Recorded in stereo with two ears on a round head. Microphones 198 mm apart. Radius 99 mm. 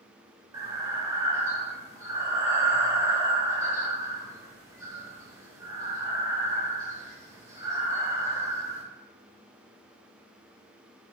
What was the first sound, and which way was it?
Breathing, 15° right (ahead or behind).